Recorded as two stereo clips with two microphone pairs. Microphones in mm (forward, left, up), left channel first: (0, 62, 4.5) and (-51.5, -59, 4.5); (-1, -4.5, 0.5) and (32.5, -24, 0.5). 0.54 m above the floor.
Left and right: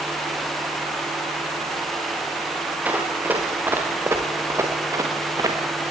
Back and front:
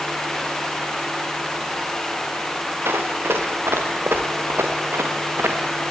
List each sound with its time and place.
2.9 s running footsteps: 35° right, 5 m; by 5.6 s 50° right, 3.5 m